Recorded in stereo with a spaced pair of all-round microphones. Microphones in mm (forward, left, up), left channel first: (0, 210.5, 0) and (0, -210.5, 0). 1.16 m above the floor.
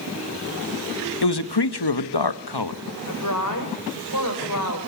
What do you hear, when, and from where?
1.2 s a man speaking: 70° left (ahead or behind), 1.3 m
3.1 s a woman speaking: 50° left (ahead or behind), 5.5 m